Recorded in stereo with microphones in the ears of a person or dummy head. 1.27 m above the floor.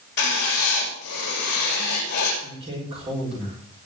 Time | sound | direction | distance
0.2 | writing | 55° left (ahead or behind) | 7.5 m
2.4 | a man speaking | 30° right (ahead or behind) | 5 m